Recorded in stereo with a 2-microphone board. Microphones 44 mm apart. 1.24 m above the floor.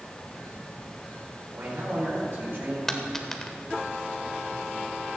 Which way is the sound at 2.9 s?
10° left (ahead or behind).